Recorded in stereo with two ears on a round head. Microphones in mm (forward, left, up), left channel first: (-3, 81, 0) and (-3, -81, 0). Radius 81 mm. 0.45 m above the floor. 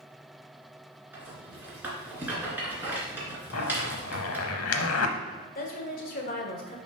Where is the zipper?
85° left, 0.9 m.